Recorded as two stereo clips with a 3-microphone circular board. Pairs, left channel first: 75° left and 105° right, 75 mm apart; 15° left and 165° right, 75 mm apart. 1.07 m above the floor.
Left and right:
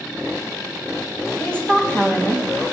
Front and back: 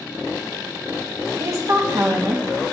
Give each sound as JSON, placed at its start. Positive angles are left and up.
{"t": 1.4, "sound": "a woman speaking", "azimuth_deg": 150, "distance_m": 1.4}